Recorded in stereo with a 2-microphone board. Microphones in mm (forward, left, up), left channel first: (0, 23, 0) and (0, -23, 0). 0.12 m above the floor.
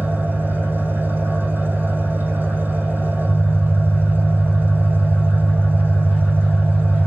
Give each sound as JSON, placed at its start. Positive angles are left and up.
{"t": 0.0, "sound": "an engine running", "side_deg": -50, "distance_m": 6.0}